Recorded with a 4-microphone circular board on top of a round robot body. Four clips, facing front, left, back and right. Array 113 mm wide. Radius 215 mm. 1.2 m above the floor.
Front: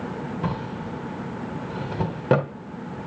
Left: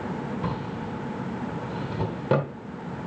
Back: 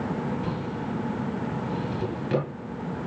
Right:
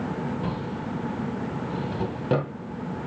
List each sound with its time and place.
0.4 s a drawer: 5° left, 2.5 m